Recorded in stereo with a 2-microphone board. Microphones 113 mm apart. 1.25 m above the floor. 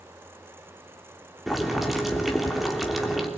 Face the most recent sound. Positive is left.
turn(degrees=0)  # may be behind; listen again after turning